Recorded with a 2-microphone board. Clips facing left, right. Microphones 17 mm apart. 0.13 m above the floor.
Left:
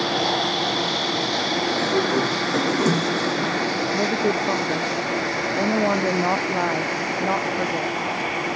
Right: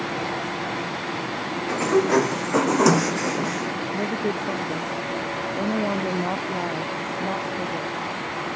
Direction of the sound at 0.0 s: 70° left (ahead or behind).